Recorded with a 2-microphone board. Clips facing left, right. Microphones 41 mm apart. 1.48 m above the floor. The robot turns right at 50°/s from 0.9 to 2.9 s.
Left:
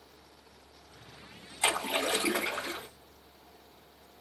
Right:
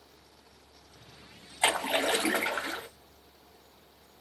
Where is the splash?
130° right, 2 m; by 2.9 s 65° right, 2 m.